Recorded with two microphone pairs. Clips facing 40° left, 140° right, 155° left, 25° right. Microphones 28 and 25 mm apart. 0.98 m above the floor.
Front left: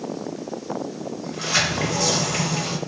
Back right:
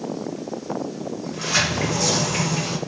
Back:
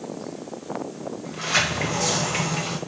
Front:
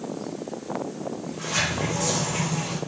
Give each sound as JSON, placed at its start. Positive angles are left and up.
{"t": 1.2, "sound": "a sliding door", "azimuth_deg": 125, "distance_m": 0.8}